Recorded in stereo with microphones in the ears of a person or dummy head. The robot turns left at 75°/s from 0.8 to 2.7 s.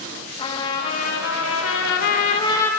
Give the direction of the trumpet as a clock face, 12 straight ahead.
7 o'clock.